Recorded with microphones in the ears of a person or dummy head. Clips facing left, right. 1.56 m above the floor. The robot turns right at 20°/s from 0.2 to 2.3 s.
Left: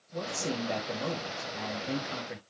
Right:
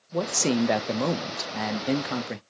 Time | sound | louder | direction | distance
0.1 | a man speaking | right 9 dB | 110° right | 0.6 m